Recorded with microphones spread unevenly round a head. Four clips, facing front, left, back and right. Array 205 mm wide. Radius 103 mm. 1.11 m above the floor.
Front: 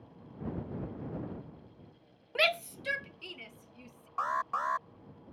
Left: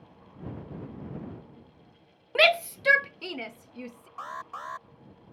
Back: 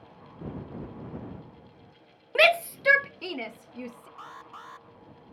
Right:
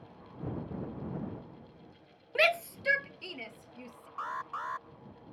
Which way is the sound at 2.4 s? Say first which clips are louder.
Left 6 dB, back 9 dB; 140° left.